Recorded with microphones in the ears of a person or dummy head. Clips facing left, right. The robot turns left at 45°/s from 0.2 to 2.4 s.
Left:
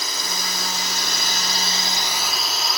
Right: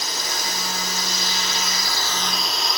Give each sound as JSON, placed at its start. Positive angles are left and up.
{"t": 0.0, "sound": "a drone", "side_deg": 65}